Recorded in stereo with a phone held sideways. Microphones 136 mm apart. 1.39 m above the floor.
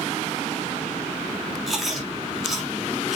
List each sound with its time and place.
1.7 s chewing: centre (ahead or behind), 3.5 m